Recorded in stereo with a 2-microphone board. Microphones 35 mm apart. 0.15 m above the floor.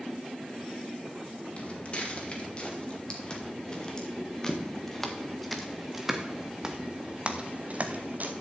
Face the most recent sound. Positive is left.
turn(degrees=-55)  # may be behind; listen again after turning